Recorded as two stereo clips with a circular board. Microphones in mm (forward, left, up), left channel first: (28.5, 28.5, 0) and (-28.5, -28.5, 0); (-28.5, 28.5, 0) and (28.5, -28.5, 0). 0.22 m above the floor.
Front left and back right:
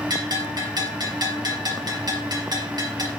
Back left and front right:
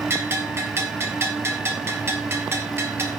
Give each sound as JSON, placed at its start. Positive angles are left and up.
{"t": 0.1, "sound": "a bell", "azimuth_deg": -105, "distance_m": 2.5}